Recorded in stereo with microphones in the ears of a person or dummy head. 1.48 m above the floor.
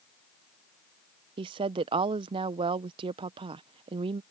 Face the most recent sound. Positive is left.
turn(degrees=-25)  # may be behind; listen again after turning